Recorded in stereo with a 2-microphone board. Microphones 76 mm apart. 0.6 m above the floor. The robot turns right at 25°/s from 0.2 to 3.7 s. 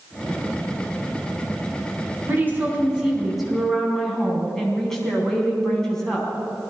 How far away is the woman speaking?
About 4.5 m.